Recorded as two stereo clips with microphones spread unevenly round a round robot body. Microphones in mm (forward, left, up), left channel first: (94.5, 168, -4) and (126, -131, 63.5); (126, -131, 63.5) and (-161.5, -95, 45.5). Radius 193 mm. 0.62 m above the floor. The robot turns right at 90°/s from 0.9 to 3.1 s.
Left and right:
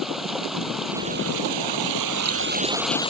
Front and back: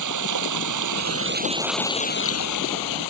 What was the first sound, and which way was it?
Running water, 175° right.